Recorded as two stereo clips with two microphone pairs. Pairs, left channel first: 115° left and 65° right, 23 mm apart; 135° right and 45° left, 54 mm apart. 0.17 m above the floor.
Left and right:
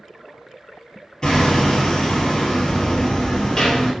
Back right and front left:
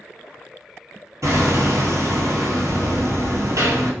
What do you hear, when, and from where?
1.2 s hammering: 60° left, 0.8 m